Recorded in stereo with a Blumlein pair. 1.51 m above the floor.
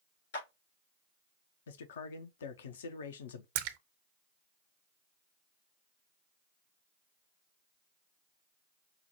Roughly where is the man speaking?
Ahead left.